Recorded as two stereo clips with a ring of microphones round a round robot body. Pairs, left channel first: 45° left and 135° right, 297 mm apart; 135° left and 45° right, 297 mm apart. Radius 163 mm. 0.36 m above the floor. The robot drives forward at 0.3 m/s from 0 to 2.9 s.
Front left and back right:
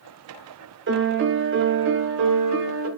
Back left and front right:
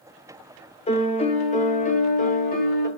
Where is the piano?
165° right, 1.4 m; by 2.9 s 170° right, 1.9 m.